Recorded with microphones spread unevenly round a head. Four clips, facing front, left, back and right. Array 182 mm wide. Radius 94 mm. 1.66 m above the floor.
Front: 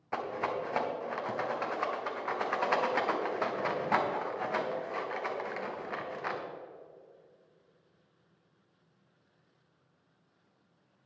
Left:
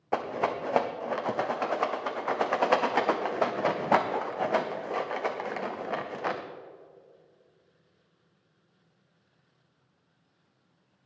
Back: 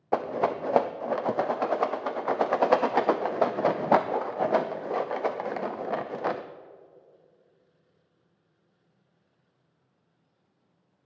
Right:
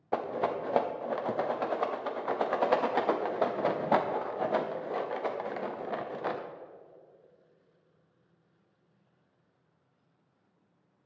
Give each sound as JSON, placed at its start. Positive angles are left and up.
{"t": 0.1, "sound": "a rattle", "azimuth_deg": 180, "distance_m": 0.5}